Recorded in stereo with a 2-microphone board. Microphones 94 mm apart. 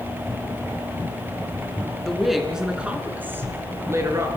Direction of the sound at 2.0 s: 5° left (ahead or behind).